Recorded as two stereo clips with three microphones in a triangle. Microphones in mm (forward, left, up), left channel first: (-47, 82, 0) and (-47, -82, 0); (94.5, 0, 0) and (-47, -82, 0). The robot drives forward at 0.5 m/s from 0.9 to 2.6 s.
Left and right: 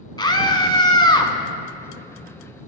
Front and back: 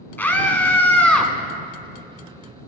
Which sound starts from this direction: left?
A scream, at 0.2 s.